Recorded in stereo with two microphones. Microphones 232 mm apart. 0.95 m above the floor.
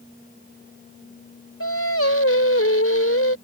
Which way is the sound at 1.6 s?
70° left (ahead or behind).